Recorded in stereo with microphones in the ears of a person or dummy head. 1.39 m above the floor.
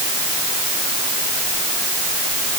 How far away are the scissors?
No scissors in this recording.